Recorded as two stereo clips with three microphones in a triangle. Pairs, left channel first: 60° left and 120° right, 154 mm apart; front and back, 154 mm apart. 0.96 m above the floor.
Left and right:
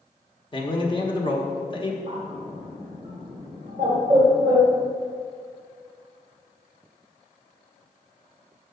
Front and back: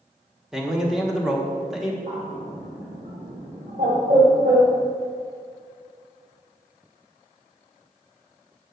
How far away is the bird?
About 2 m.